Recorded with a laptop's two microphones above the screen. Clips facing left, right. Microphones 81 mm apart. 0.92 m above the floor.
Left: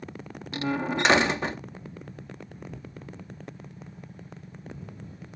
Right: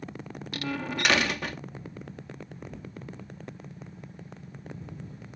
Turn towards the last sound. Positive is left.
turn(degrees=25)  # may be behind; listen again after turning